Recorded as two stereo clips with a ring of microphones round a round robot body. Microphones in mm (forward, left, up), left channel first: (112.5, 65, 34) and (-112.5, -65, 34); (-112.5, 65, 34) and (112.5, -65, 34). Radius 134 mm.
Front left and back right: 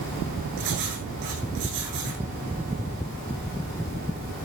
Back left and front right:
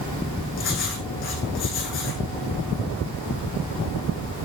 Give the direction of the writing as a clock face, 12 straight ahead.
5 o'clock.